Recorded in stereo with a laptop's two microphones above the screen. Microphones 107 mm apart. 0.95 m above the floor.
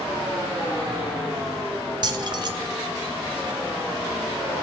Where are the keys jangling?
45° right (ahead or behind), 1.7 m.